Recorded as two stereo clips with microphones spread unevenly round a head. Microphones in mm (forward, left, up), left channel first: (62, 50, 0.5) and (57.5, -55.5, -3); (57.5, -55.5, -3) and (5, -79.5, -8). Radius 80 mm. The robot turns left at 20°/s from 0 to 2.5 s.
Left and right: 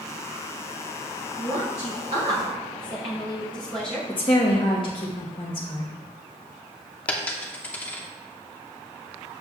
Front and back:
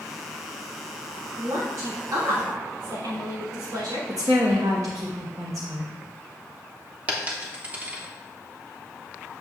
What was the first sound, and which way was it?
A woman speaking, 135° right.